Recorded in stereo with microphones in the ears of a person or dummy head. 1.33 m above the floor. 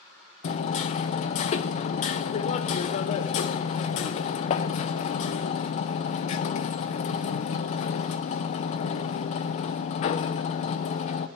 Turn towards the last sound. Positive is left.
turn(degrees=35)  # may be behind; listen again after turning